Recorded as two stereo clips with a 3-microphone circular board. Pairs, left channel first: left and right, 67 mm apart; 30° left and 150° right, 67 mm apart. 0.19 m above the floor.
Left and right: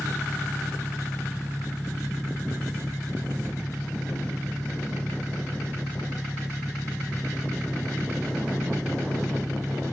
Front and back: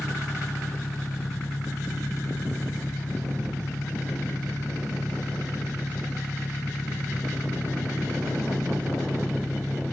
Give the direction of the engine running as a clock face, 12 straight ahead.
12 o'clock.